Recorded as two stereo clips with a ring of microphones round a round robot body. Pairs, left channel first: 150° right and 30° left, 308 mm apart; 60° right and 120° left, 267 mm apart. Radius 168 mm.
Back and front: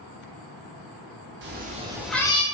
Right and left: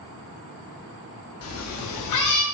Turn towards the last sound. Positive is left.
turn(degrees=-80)